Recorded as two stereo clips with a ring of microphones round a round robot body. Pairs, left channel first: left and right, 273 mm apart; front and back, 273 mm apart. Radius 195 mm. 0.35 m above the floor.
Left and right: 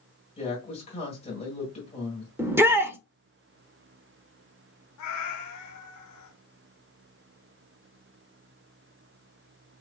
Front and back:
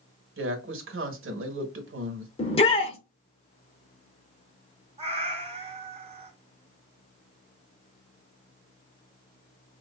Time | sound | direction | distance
0.4 | a woman speaking | 155° left | 1.5 m
2.4 | a shout | 20° right | 0.9 m
5.0 | a cat meowing | 110° left | 1.5 m